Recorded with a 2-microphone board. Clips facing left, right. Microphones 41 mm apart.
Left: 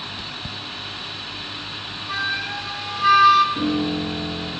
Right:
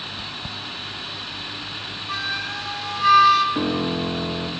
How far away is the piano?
About 1.9 m.